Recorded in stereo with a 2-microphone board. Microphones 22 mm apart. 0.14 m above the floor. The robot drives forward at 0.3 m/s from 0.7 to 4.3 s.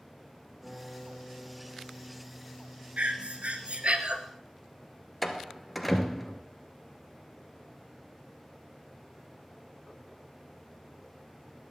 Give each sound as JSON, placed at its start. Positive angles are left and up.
{"t": 0.6, "sound": "a guitar", "side_deg": -30, "distance_m": 7.5}
{"t": 3.0, "sound": "breathing", "side_deg": -60, "distance_m": 1.3}
{"t": 5.2, "sound": "a door slam", "side_deg": 0, "distance_m": 1.4}